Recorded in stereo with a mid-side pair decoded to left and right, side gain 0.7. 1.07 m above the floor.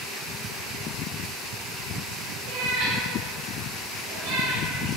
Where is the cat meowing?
60° right, 3 m.